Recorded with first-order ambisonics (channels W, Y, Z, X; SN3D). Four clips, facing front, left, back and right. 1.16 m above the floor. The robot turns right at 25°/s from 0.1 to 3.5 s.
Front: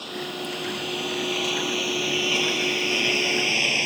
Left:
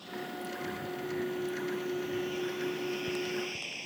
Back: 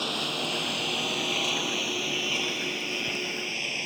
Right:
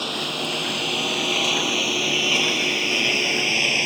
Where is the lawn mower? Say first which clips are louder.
Right 14 dB, back 3 dB; 110° right; by 3.9 s 60° right.